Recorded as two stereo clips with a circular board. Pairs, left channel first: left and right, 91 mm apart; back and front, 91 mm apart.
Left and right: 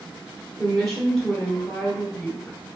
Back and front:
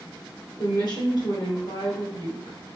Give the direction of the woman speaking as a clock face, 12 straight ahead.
6 o'clock.